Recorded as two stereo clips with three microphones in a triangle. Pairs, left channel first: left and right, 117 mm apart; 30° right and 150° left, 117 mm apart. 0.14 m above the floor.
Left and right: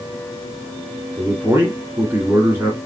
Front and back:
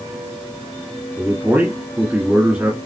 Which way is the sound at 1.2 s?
145° right.